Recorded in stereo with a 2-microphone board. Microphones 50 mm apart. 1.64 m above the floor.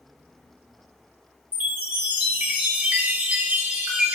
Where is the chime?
30° right (ahead or behind), 1.0 m.